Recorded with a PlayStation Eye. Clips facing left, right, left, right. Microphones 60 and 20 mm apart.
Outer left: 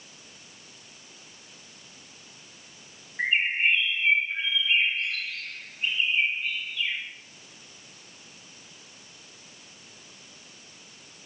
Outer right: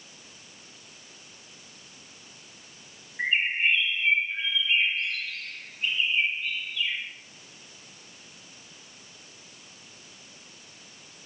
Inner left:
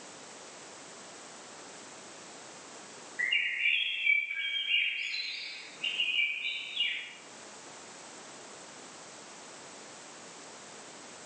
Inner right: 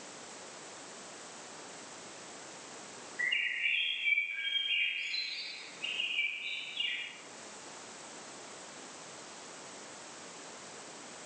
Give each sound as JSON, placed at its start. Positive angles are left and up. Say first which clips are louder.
{"t": 3.2, "sound": "a bird", "louder": "outer left 1 dB, inner left 3 dB", "side_deg": 25, "distance_m": 8.5}